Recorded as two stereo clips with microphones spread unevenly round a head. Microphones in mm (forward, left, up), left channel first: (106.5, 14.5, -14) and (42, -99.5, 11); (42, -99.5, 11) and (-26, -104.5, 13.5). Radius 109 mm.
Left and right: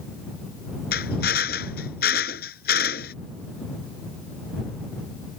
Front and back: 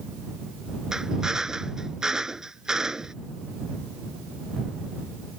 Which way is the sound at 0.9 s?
100° left.